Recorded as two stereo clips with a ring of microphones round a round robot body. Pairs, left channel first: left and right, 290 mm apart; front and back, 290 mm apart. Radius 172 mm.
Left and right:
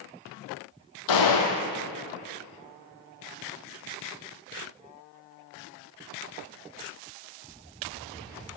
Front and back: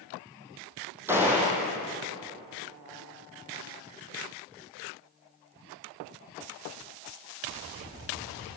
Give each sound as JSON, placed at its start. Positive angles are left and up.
{"t": 1.1, "sound": "a gunshot", "azimuth_deg": 95, "distance_m": 4.0}